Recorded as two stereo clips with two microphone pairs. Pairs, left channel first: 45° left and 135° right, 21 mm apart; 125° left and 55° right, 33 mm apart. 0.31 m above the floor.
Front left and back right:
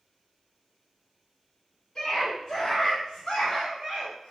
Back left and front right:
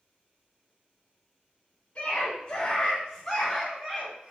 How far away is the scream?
About 1.7 m.